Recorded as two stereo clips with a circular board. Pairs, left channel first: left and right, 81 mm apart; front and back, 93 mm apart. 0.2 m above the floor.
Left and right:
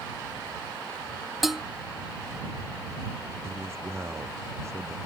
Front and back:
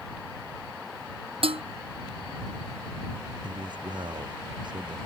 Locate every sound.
1.4 s dishes clattering: straight behind
3.4 s a man speaking: 145° right